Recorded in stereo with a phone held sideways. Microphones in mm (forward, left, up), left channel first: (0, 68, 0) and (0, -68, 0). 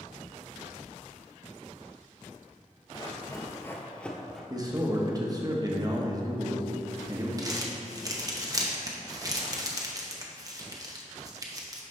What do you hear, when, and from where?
2.9 s running footsteps: 35° left (ahead or behind), 1.0 m; by 4.4 s centre (ahead or behind), 1.3 m
4.5 s a man speaking: 25° right (ahead or behind), 1.0 m
7.4 s crumpling: 25° right (ahead or behind), 0.9 m